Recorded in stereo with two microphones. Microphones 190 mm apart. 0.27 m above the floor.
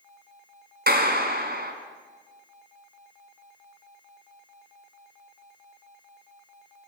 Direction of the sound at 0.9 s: 60° right (ahead or behind).